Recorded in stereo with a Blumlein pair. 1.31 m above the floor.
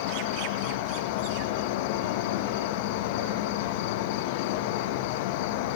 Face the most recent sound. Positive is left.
turn(degrees=50)